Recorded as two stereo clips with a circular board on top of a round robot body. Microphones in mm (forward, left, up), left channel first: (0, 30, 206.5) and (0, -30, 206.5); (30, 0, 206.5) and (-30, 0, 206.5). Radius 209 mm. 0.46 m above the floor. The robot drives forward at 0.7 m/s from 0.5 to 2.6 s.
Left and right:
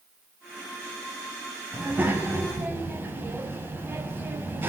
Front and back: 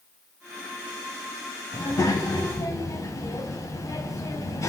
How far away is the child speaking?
About 4.5 m.